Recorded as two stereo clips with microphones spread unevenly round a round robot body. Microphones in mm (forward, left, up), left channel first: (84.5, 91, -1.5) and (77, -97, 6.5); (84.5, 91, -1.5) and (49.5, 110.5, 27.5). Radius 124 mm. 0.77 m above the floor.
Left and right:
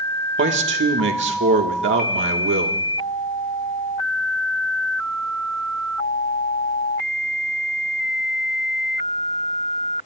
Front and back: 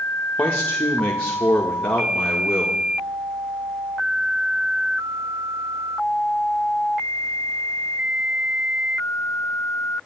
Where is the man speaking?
80° right, 1.7 m.